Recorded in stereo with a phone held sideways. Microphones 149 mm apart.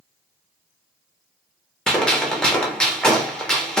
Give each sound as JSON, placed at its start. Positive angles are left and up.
{"t": 1.9, "sound": "a gunshot", "side_deg": 5, "distance_m": 0.6}